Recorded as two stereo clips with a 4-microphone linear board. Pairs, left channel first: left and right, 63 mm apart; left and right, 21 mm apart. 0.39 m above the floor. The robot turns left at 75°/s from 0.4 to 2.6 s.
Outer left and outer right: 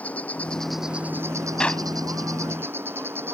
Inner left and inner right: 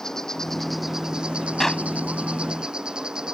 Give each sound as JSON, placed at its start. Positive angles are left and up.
{"t": 0.0, "sound": "an insect", "azimuth_deg": 20}
{"t": 1.6, "sound": "a clap", "side_deg": 15}